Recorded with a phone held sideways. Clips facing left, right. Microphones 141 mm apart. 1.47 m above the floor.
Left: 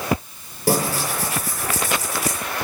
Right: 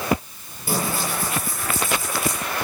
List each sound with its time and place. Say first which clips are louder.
0.7 s tearing paper: left 4 dB; 80° left, 7 m